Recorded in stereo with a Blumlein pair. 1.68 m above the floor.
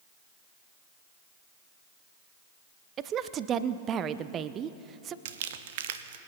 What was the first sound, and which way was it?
A woman speaking, 30° right.